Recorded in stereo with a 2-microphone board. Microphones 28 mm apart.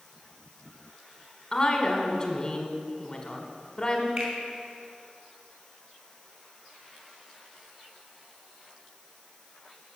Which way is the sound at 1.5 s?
25° left (ahead or behind).